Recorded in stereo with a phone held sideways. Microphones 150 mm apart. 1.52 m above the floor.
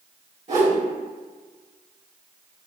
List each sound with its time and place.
0.5 s a whoosh: 50° right (ahead or behind), 1.8 m